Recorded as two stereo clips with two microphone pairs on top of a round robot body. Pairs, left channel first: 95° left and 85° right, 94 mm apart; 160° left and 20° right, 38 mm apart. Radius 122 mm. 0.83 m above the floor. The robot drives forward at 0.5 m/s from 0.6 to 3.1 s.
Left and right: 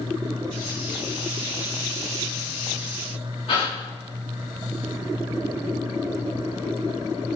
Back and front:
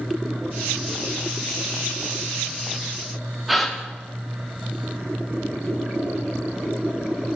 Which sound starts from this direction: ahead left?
A gasp, at 3.5 s.